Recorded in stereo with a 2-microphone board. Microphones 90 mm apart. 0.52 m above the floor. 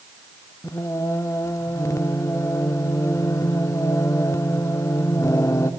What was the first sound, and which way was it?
Singing, 35° left (ahead or behind).